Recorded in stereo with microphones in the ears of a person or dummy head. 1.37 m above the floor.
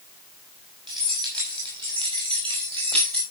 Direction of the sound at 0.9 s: 20° right (ahead or behind).